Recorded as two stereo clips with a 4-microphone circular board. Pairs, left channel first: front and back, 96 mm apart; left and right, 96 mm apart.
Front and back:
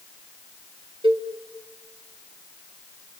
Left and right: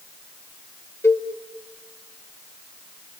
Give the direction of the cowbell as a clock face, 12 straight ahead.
7 o'clock.